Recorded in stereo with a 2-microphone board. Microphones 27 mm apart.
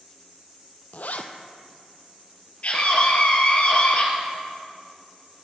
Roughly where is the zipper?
Left.